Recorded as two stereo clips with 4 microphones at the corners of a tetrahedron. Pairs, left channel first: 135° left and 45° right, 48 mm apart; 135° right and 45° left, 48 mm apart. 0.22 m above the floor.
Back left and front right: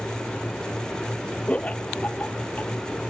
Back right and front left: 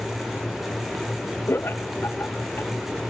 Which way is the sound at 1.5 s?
165° right.